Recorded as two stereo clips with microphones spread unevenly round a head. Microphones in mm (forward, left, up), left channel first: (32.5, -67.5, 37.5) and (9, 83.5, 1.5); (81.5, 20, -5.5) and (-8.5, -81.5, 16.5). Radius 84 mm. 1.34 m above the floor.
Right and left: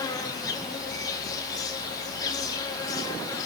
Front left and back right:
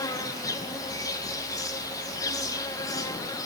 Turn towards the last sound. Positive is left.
turn(degrees=-15)